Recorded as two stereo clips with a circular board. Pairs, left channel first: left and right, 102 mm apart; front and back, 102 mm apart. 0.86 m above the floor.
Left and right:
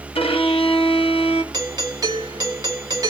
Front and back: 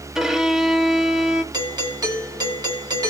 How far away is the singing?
No singing in this recording.